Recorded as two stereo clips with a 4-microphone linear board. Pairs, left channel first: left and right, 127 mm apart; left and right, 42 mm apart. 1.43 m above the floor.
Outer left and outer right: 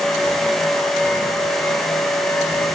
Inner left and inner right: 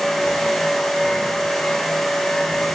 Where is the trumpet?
I don't hear a trumpet.